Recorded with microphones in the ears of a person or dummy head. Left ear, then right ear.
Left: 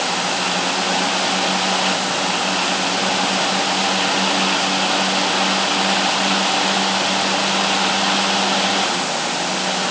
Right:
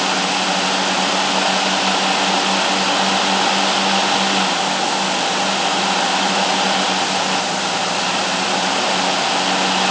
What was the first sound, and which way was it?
Only background noise.